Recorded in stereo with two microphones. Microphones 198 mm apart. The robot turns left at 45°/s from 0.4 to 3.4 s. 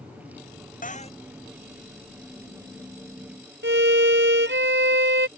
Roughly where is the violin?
Right.